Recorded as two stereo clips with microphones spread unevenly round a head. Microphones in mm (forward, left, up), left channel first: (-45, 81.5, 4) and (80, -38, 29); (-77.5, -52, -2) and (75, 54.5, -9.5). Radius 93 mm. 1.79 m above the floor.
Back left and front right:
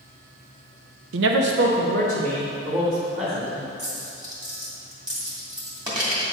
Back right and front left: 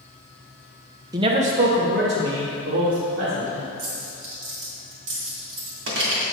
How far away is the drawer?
No drawer in this recording.